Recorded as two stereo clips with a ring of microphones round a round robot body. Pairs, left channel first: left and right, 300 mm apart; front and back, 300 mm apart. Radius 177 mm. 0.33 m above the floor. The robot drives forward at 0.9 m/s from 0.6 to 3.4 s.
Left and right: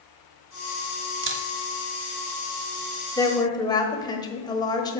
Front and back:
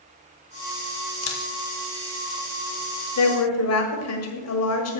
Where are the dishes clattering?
No dishes clattering in this recording.